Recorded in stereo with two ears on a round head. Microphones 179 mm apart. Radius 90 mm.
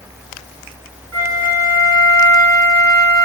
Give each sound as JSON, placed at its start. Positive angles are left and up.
{"t": 1.1, "sound": "a flute", "side_deg": -50, "distance_m": 6.5}